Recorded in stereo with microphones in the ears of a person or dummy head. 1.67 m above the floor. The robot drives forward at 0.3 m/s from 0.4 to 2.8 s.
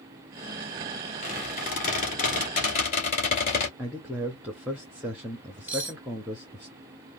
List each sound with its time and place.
1.2 s a squeak: 30° left (ahead or behind), 1.8 m
3.8 s a man speaking: 10° right (ahead or behind), 0.6 m
5.7 s cutlery clinking: 15° right (ahead or behind), 2.5 m